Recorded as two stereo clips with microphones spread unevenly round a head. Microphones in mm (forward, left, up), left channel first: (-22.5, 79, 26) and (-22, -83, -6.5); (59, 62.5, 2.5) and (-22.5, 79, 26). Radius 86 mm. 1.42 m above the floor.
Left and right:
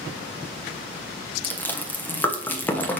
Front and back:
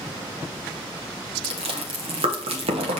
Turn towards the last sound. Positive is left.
turn(degrees=170)